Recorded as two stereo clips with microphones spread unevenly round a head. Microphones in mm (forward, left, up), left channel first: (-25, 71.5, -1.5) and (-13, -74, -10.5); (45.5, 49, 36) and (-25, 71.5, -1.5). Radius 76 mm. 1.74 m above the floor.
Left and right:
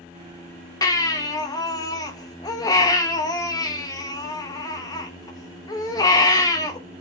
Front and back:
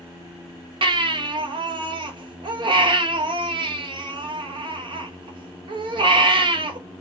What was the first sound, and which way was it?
A baby crying, 145° left.